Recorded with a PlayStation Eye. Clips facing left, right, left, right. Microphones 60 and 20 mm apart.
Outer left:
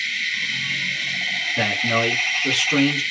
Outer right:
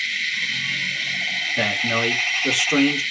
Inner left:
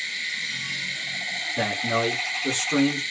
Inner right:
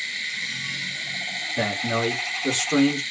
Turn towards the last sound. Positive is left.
turn(degrees=-20)  # may be behind; listen again after turning